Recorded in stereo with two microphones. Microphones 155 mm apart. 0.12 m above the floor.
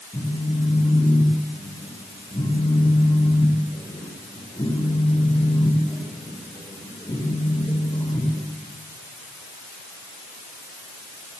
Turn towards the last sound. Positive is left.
turn(degrees=25)  # may be behind; listen again after turning